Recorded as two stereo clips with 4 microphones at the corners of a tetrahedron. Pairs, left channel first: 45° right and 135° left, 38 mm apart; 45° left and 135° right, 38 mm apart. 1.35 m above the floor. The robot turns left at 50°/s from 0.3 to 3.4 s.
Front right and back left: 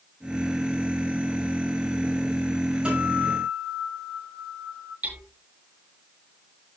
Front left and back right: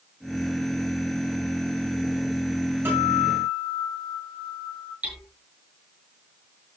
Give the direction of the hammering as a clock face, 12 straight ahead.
6 o'clock.